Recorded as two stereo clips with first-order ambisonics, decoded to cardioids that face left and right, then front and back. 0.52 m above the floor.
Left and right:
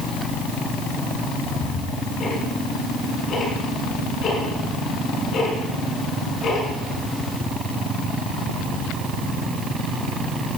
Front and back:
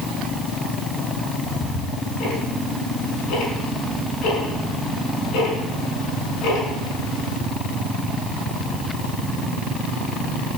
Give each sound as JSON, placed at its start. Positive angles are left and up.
{"t": 1.4, "sound": "ticking", "azimuth_deg": 30, "distance_m": 6.0}